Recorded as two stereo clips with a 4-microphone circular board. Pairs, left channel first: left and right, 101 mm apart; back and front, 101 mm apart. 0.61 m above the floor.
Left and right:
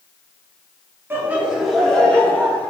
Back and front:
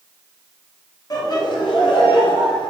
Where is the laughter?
150° right, 1.0 m; by 2.7 s 155° left, 1.4 m.